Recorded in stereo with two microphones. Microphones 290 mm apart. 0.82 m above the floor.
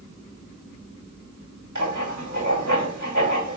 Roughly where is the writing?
Right.